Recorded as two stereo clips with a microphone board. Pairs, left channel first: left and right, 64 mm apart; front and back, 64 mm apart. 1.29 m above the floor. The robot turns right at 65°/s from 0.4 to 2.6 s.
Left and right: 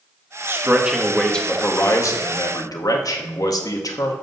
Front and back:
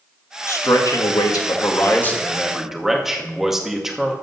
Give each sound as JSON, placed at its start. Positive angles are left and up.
{"t": 0.5, "sound": "a man speaking", "azimuth_deg": -40, "distance_m": 1.8}